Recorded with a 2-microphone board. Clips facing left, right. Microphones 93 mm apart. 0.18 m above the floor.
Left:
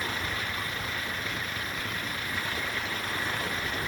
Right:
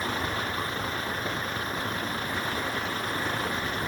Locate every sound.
0.0 s a vehicle: 35° right (ahead or behind)